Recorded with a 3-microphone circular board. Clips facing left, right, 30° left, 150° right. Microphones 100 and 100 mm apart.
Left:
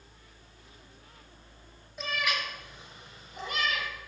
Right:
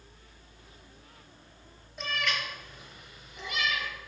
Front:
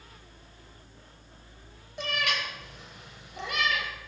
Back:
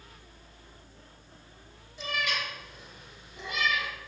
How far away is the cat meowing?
About 1.4 m.